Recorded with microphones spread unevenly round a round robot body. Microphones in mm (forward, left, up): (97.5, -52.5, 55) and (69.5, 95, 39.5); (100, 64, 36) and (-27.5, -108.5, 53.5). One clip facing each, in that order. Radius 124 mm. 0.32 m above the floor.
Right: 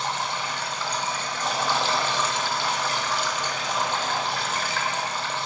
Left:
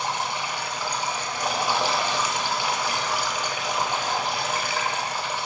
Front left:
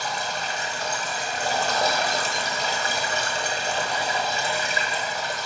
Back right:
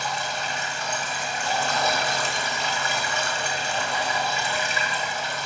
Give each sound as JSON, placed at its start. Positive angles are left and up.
{"t": 0.0, "sound": "running water", "azimuth_deg": 35, "distance_m": 0.7}